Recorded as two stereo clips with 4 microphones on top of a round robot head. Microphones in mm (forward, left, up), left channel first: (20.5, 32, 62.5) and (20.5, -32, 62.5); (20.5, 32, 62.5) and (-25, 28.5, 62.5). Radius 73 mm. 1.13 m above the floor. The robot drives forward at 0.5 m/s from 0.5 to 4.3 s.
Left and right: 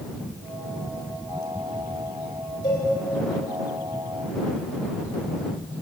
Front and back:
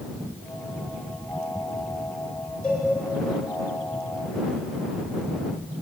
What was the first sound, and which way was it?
A cowbell, 80° left.